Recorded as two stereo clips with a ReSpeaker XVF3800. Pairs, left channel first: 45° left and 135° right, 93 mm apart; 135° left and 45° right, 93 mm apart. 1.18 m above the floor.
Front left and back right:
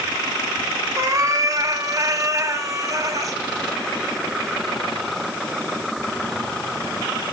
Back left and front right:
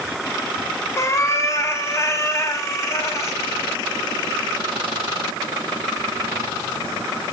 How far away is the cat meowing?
About 0.6 m.